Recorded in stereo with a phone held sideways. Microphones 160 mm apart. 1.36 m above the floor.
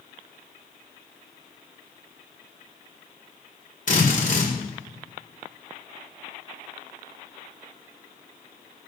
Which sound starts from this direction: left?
A drill, at 3.9 s.